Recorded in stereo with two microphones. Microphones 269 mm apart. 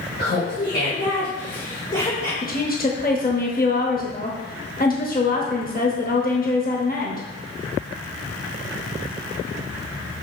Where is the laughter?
45° left (ahead or behind), 3.5 m; by 2.3 s 25° left (ahead or behind), 2.5 m.